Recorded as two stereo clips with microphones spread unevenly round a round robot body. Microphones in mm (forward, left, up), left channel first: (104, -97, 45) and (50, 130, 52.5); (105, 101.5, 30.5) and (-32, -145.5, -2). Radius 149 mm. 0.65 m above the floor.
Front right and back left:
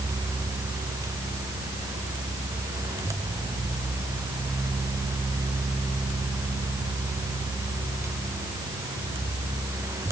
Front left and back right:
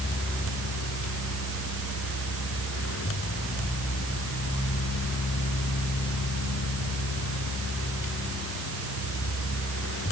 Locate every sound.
Only background noise.